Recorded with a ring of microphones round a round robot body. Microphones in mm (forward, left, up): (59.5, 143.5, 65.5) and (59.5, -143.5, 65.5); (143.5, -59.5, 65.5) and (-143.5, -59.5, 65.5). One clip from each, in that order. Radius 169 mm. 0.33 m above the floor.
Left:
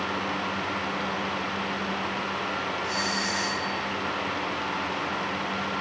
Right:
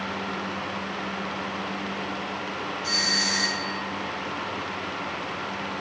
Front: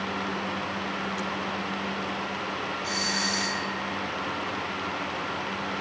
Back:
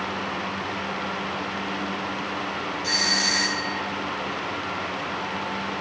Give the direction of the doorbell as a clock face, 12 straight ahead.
5 o'clock.